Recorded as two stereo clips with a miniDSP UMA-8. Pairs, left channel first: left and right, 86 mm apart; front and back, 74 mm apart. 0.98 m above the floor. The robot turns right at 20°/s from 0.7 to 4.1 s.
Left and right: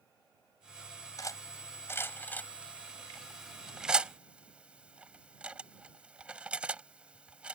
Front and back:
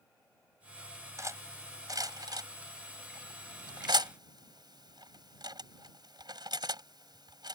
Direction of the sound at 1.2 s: 135° left.